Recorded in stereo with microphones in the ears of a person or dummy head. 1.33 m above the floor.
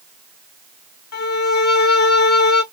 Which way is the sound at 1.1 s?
55° left (ahead or behind).